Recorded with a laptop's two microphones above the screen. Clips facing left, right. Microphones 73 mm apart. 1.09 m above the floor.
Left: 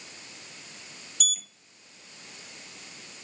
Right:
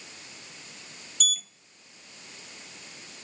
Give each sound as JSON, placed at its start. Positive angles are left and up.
{"t": 1.2, "sound": "a sliding door", "side_deg": 0, "distance_m": 0.6}